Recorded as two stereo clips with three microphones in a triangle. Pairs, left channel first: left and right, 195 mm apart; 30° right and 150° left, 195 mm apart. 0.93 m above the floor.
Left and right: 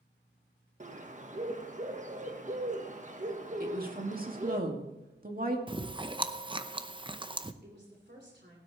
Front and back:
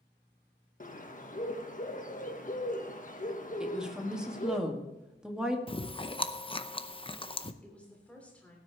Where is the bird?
55° right, 1.2 m.